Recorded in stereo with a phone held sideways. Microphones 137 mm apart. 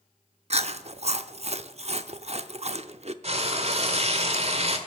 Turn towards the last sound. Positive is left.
turn(degrees=-50)  # may be behind; listen again after turning